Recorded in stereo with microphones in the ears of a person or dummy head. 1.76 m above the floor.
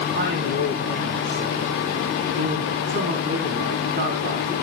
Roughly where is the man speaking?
Right.